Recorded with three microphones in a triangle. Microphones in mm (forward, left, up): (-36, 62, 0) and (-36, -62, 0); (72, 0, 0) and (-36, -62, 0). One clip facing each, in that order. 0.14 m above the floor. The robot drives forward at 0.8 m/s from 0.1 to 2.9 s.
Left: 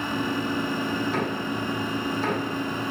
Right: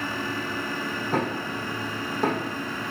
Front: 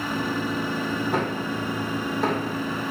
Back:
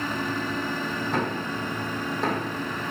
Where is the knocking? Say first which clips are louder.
Even, front 2 dB; 50° right, 6.5 m; by 2.5 s 60° right, 6 m.